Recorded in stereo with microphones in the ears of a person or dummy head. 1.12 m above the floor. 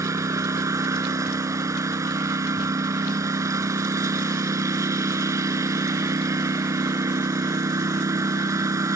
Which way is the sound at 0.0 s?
15° right (ahead or behind).